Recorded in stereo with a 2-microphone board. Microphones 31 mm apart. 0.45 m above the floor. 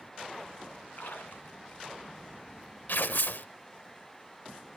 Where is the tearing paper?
70° left (ahead or behind), 0.7 m.